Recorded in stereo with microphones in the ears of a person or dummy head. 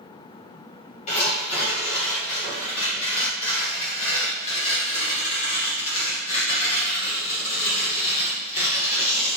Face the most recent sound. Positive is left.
turn(degrees=40)  # may be behind; listen again after turning